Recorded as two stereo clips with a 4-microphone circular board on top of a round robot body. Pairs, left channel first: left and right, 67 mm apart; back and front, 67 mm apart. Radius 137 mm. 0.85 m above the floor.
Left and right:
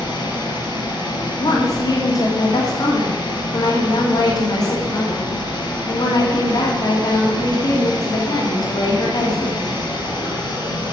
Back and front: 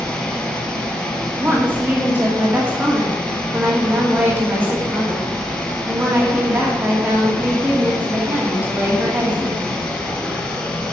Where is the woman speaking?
65° left, 2.5 m.